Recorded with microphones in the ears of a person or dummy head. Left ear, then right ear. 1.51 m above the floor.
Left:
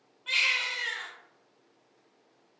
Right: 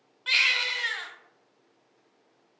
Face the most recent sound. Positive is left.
turn(degrees=-40)  # may be behind; listen again after turning